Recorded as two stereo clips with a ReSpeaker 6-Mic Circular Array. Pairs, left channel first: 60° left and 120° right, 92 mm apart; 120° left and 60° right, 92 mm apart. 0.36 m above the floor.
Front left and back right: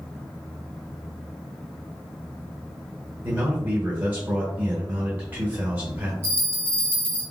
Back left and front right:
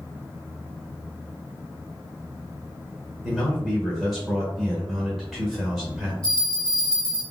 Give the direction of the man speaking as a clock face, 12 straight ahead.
5 o'clock.